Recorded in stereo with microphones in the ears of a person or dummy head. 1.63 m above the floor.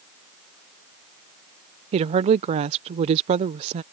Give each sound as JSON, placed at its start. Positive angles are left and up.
{"t": 1.9, "sound": "a woman speaking", "side_deg": -35}